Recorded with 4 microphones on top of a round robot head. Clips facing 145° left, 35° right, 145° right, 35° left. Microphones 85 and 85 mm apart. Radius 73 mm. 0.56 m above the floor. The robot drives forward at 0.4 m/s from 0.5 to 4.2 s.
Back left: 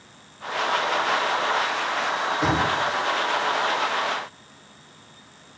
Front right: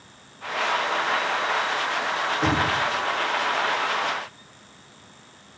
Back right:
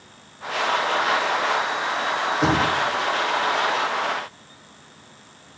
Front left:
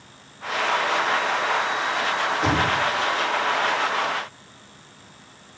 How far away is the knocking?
About 2.5 m.